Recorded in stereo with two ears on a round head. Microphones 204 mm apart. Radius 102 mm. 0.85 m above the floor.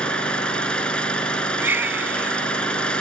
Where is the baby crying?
10° right (ahead or behind).